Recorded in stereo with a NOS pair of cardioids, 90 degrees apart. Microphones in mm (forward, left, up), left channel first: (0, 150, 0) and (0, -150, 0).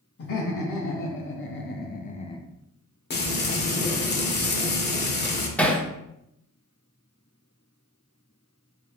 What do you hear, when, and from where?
0.2 s laughter: 50° left, 1.6 m; by 2.5 s 15° left, 0.5 m
3.1 s frying: 35° left, 1.1 m
5.6 s hammering: 5° left, 0.9 m